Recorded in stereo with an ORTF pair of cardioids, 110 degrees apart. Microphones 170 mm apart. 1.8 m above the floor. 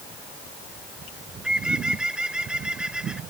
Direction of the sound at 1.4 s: 5° right.